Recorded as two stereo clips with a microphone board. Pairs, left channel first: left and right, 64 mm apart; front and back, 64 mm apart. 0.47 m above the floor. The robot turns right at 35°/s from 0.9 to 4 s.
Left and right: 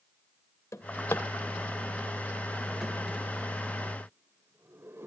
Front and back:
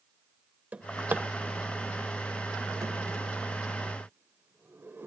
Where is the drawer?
120° left, 1.2 m; by 5.1 s 130° right, 1.2 m.